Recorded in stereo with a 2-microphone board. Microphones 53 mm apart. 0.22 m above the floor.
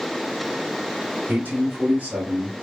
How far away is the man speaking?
About 1.4 m.